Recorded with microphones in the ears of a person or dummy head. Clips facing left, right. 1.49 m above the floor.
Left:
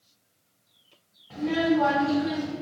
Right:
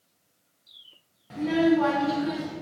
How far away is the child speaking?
About 0.6 m.